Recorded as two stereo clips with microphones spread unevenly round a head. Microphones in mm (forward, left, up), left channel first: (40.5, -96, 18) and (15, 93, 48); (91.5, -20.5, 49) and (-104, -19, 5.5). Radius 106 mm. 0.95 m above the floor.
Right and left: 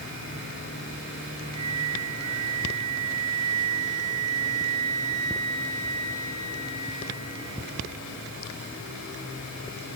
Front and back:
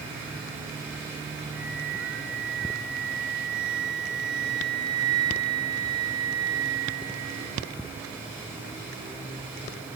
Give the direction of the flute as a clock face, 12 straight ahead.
8 o'clock.